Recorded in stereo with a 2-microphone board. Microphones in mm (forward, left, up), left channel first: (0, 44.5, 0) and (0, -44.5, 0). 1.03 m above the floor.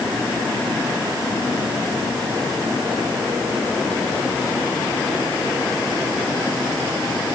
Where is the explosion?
I don't hear an explosion.